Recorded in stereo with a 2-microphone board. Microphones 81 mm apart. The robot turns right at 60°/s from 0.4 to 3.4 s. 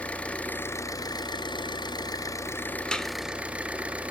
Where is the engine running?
15° left, 1.0 m; by 4.1 s 165° right, 1.0 m.